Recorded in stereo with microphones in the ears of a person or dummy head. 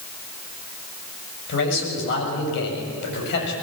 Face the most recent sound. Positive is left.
turn(degrees=65)  # may be behind; listen again after turning